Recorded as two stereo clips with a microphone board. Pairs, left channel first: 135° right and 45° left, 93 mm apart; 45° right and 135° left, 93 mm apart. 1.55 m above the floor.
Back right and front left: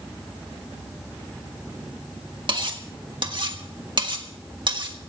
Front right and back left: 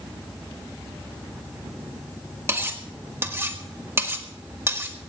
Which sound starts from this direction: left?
Cutlery clinking, at 2.5 s.